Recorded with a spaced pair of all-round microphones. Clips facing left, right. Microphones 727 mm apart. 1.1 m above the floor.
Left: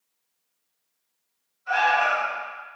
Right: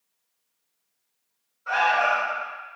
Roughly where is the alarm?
Right.